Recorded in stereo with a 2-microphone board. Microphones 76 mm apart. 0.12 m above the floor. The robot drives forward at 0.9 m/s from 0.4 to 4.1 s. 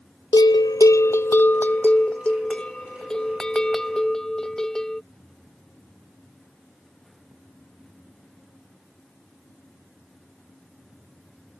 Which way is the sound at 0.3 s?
65° left (ahead or behind).